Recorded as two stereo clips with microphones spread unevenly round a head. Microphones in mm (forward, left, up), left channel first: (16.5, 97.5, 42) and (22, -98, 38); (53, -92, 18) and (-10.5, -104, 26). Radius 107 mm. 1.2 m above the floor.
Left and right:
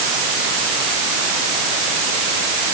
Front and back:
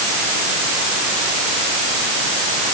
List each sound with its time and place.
Only background noise.